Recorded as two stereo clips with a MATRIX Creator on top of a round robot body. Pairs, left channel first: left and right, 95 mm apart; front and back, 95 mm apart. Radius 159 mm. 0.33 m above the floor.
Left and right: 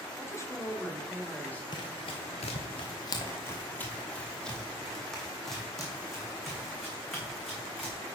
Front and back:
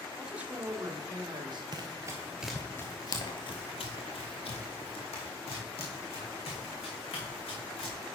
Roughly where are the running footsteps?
Behind left.